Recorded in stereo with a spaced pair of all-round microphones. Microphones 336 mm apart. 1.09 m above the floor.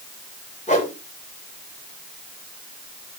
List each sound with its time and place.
0.7 s a whoosh: 20° left (ahead or behind), 3.5 m